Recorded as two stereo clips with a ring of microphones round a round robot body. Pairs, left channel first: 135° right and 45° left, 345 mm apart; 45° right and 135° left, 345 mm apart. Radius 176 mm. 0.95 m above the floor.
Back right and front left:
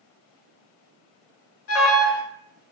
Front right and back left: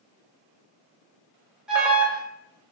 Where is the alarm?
140° right, 0.8 m.